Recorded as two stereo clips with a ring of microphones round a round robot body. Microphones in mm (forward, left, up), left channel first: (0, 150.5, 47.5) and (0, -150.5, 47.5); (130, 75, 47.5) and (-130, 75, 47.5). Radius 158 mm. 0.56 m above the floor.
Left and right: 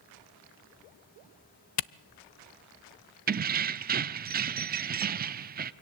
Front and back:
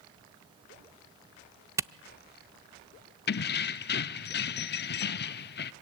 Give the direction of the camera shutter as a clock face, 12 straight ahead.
9 o'clock.